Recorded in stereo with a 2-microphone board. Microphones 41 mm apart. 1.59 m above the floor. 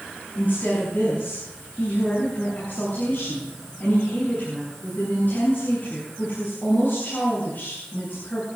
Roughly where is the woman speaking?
Left.